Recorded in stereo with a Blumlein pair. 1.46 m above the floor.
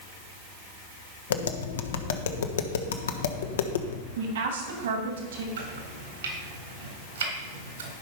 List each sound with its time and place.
1.3 s tapping: 65° left, 1.2 m
4.2 s a woman speaking: 60° right, 3 m
5.6 s chopping: 65° right, 3.5 m